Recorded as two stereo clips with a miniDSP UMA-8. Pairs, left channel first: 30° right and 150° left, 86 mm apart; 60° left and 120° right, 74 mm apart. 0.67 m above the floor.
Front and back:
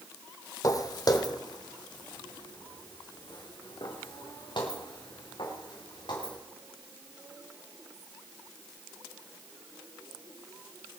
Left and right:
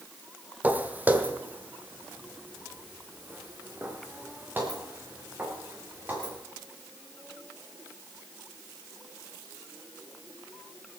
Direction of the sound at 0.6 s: 60° right.